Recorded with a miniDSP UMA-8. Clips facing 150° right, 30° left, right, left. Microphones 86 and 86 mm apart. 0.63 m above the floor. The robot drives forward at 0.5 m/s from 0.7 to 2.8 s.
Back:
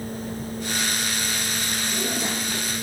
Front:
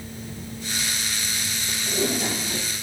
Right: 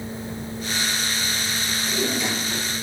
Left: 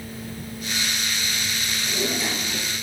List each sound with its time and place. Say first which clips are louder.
1.7 s a drawer: front 5 dB, right 2 dB; straight ahead, 3.5 m